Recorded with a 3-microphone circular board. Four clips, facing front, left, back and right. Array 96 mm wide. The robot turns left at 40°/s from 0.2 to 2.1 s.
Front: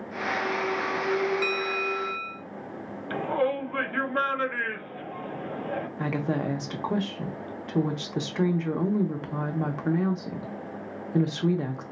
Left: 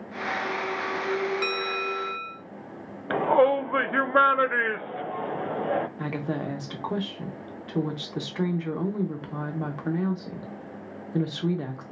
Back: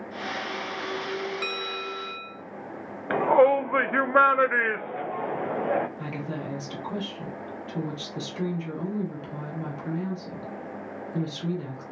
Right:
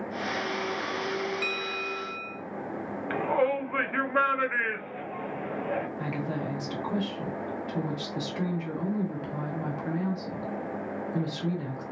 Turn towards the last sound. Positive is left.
turn(degrees=35)